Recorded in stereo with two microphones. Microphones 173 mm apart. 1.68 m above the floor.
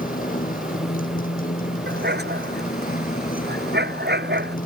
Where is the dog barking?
80° right.